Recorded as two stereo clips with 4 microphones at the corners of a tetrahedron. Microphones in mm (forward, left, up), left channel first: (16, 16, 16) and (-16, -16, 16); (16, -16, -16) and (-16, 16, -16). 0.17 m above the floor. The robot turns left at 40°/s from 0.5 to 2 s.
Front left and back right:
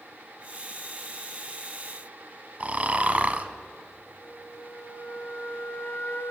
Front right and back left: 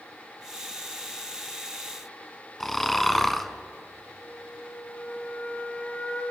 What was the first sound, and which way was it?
Snoring, 125° right.